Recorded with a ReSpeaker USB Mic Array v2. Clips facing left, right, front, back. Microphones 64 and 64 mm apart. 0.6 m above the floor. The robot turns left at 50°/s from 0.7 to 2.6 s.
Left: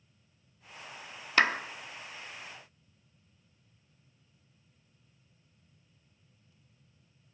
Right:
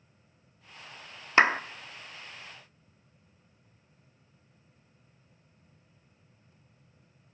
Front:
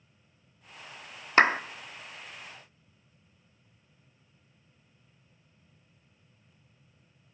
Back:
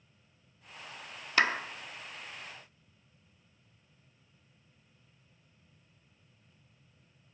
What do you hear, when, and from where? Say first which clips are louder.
1.4 s a clap: right 4 dB, front 6 dB; 35° right, 0.5 m; by 1.6 s 45° right, 0.5 m